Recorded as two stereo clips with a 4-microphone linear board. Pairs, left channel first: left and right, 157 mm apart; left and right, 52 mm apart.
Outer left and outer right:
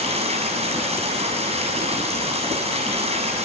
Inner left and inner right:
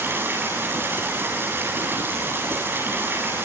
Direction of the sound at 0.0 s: 40° right (ahead or behind).